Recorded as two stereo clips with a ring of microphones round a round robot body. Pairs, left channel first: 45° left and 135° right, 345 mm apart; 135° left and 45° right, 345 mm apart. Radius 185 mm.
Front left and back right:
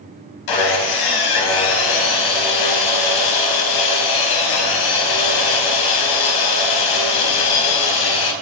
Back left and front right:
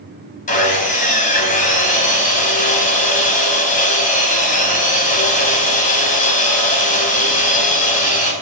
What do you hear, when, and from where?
0.5 s sawing: 65° left, 4 m